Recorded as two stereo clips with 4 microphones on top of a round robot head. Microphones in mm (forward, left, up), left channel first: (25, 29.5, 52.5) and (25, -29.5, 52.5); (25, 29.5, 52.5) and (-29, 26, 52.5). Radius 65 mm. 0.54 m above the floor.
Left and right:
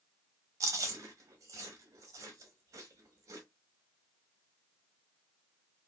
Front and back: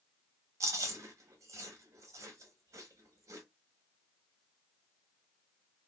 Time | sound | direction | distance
0.6 | chewing | 135° right | 0.7 m